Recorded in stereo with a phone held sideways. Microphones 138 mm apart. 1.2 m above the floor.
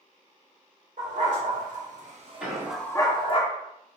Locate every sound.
1.0 s a dog barking: 70° right (ahead or behind), 2.5 m; by 3.4 s 40° left (ahead or behind), 1.2 m
2.4 s an explosion: 10° right (ahead or behind), 1.8 m